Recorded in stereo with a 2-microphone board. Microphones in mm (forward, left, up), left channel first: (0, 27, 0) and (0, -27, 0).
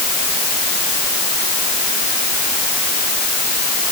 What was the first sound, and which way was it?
Only background noise.